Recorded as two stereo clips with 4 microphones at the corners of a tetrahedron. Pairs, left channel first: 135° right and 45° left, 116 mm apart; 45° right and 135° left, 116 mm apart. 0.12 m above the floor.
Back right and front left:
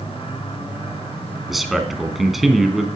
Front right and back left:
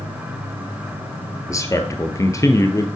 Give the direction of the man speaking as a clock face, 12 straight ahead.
1 o'clock.